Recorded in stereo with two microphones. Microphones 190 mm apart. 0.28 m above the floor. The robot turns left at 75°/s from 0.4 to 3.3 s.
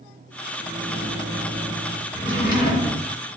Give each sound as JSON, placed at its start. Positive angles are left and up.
{"t": 0.6, "sound": "a microwave", "azimuth_deg": -65, "distance_m": 1.6}
{"t": 2.1, "sound": "a drawer", "azimuth_deg": 160, "distance_m": 1.8}